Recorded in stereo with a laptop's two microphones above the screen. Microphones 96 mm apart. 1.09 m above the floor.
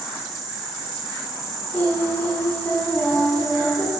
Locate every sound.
0.0 s an insect: centre (ahead or behind), 5 m
1.7 s singing: 20° left (ahead or behind), 3.5 m